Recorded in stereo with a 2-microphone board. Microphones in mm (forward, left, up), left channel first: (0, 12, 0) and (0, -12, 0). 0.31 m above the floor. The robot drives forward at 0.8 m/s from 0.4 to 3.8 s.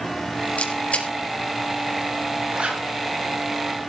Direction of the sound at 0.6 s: 65° left (ahead or behind).